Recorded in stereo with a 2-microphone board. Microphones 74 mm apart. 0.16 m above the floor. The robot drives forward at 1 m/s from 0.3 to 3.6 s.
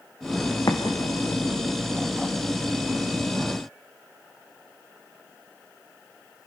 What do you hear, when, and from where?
0.7 s an explosion: 60° left (ahead or behind), 3 m; by 1.7 s 80° left, 2.5 m